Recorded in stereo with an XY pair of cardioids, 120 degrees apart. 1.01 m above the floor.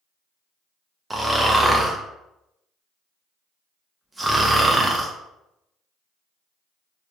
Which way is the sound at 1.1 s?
15° right.